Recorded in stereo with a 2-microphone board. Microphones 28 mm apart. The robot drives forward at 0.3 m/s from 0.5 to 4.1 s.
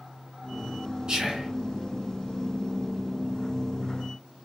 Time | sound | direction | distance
1.1 | whispering | 30° right (ahead or behind) | 1.5 m